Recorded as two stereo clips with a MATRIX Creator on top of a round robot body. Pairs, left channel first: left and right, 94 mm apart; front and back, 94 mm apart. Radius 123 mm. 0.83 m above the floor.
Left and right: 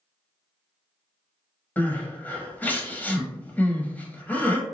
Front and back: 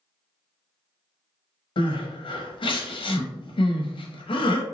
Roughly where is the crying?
Ahead.